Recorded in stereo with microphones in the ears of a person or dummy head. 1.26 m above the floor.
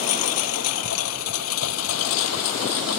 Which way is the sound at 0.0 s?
75° left (ahead or behind).